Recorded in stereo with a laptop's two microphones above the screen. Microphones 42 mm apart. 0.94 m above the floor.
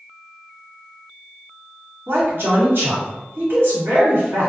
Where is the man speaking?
60° right (ahead or behind), 1.3 m.